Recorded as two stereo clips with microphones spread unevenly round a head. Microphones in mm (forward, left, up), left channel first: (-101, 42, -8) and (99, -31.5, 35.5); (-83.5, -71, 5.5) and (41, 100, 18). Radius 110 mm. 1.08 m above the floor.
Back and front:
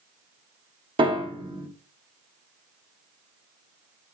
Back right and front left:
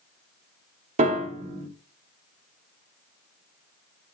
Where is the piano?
20° left, 0.7 m.